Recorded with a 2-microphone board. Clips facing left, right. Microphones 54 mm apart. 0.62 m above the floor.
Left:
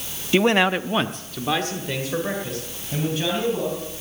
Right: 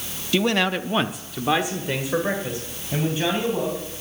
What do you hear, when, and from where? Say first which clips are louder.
0.3 s a man speaking: left 3 dB; 30° left (ahead or behind), 0.7 m; by 4.0 s 20° right (ahead or behind), 4.5 m